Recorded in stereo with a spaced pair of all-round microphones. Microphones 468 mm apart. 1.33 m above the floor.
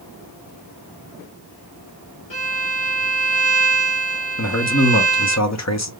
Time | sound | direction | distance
2.3 | a violin | 80° left | 1.1 m
4.4 | a man speaking | 35° left (ahead or behind) | 0.8 m